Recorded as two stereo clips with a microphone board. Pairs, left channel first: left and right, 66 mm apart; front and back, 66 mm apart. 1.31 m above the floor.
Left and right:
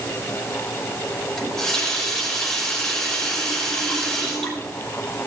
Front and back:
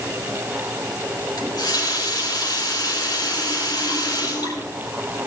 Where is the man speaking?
I don't hear a man speaking.